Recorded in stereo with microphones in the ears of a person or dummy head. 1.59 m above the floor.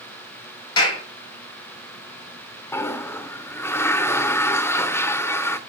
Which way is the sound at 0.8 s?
30° left (ahead or behind).